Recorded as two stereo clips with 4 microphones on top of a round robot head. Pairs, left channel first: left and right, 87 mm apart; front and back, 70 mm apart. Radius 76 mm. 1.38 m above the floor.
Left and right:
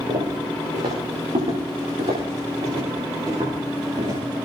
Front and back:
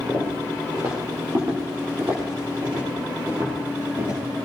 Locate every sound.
0.1 s footsteps: 115° right, 8.5 m; by 4.2 s 130° right, 9.5 m